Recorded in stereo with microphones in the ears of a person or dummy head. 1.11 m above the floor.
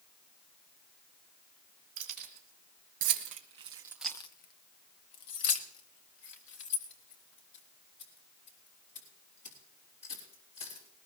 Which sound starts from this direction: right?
Keys jangling, at 2.0 s.